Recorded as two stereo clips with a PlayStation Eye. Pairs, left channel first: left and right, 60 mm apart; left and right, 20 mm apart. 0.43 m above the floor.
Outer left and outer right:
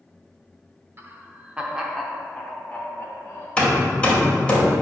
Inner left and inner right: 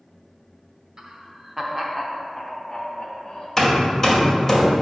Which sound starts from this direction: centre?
Hammering, at 3.6 s.